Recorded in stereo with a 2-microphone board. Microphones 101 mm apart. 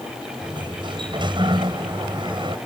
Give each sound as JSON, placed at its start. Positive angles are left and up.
{"t": 0.4, "sound": "a sliding door", "side_deg": -55}